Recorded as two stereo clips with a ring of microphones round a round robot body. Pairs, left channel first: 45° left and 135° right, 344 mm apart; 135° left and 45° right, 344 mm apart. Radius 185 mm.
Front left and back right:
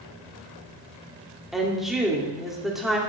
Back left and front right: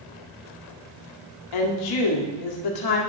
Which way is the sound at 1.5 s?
135° left.